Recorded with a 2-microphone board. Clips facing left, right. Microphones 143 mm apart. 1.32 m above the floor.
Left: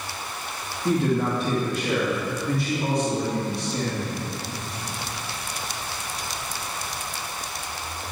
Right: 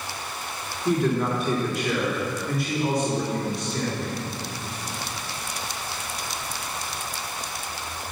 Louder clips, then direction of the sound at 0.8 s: Even; 55° left (ahead or behind).